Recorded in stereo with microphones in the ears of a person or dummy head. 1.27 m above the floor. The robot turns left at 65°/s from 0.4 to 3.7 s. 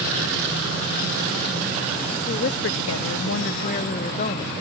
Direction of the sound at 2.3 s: 140° left.